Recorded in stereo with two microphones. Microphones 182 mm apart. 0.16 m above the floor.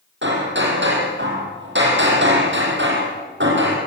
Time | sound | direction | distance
0.2 | hammering | 75° right (ahead or behind) | 5.5 m